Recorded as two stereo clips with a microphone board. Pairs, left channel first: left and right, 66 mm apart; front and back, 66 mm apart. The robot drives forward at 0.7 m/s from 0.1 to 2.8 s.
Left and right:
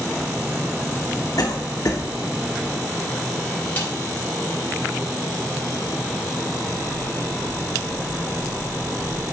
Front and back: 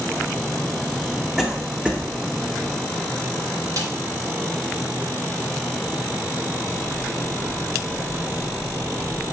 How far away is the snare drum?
About 3.5 m.